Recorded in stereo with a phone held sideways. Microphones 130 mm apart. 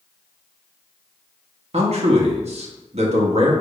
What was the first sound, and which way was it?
A man speaking, 60° right (ahead or behind).